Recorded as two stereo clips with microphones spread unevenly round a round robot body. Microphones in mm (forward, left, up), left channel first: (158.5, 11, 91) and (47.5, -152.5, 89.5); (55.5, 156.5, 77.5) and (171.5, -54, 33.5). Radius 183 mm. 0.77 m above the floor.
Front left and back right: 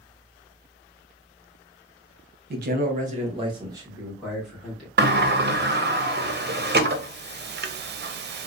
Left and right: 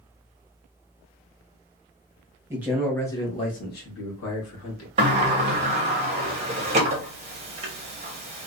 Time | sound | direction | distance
2.5 | a man speaking | 125° right | 0.8 m
5.0 | a sliding door | 110° right | 0.6 m